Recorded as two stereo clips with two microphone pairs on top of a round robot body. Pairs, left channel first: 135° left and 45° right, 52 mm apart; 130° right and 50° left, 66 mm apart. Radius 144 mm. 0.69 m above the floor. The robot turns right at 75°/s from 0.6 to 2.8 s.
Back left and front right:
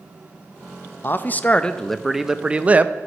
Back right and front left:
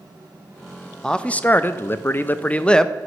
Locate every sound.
1.0 s a man speaking: 160° left, 0.6 m; by 2.9 s 65° right, 0.6 m